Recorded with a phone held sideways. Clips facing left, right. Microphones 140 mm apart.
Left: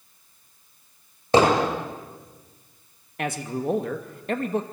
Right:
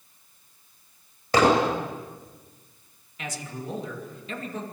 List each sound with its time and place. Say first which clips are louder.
1.3 s hammering: left 2 dB; 30° left (ahead or behind), 9 m
3.2 s a man speaking: left 8 dB; 60° left (ahead or behind), 2.5 m